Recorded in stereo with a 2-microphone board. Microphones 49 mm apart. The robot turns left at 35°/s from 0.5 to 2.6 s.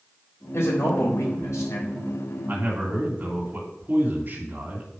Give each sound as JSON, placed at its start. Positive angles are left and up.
{"t": 0.5, "sound": "a man speaking", "azimuth_deg": 120, "distance_m": 3.5}
{"t": 2.5, "sound": "a man speaking", "side_deg": -50, "distance_m": 2.5}